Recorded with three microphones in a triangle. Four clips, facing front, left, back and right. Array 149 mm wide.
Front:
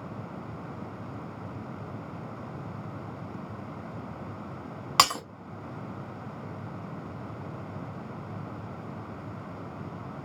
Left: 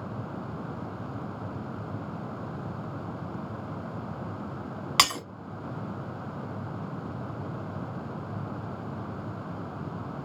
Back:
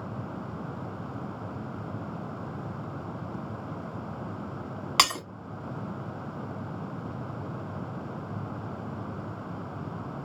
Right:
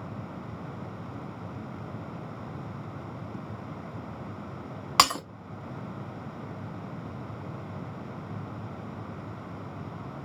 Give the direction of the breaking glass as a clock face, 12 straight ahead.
2 o'clock.